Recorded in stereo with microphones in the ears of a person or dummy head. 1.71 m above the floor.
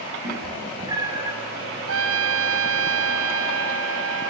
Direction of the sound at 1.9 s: 75° right (ahead or behind).